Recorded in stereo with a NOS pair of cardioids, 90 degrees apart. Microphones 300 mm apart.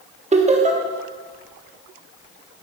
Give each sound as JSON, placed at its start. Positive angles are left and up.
{"t": 0.3, "sound": "laughter", "azimuth_deg": -25, "distance_m": 1.3}